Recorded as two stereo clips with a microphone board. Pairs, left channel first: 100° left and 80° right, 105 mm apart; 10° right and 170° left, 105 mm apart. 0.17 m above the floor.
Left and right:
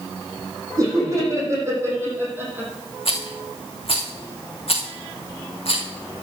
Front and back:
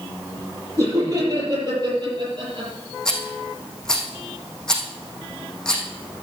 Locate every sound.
0.8 s laughter: 135° right, 7.5 m; by 2.7 s 150° right, 6.5 m
3.0 s a rattle: 75° left, 3.5 m